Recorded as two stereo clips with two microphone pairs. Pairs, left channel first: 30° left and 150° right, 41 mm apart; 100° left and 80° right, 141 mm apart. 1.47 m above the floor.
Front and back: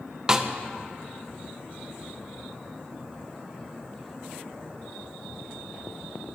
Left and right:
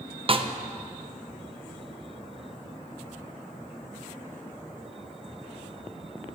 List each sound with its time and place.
0.3 s a snare drum: 85° right, 0.5 m